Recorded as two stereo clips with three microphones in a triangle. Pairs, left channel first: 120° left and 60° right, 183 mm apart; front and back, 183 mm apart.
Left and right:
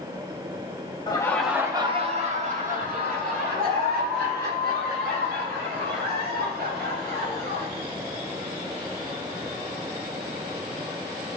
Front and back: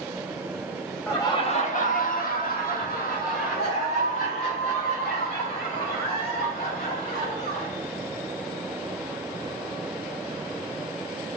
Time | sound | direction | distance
1.1 | laughter | 70° left | 0.9 m